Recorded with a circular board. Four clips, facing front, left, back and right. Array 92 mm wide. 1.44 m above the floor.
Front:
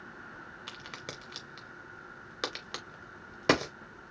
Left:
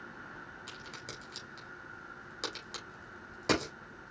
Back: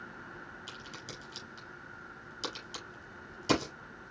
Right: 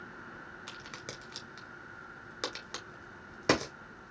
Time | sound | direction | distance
0.7 | a crack | 15° right | 2.5 m